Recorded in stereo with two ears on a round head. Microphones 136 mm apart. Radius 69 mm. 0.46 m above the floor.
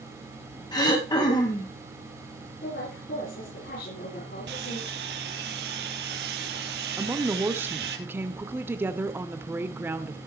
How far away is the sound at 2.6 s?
About 9.5 m.